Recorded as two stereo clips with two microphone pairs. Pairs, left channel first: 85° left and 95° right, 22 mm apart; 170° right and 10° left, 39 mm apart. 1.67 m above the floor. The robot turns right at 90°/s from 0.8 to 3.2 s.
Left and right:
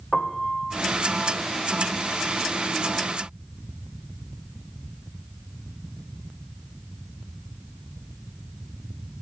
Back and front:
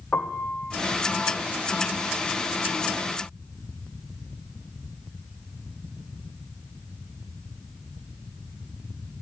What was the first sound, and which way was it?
A piano, 150° left.